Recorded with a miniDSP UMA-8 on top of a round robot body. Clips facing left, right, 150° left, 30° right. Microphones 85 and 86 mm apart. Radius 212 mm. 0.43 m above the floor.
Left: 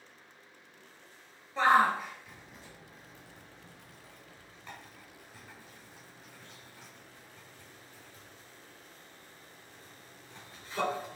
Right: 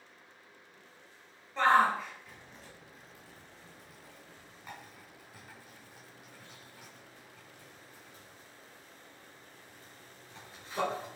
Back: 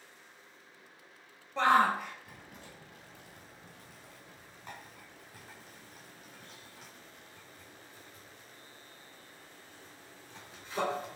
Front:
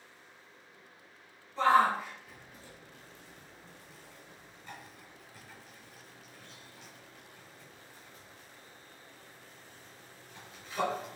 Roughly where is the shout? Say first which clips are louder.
Left 1 dB, front 1 dB; behind.